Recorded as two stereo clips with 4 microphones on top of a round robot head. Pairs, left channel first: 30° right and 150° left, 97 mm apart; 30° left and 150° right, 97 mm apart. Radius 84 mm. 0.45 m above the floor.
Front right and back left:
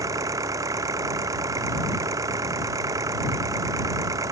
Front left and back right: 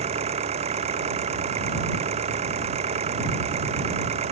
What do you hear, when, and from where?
0.0 s an engine running: 155° right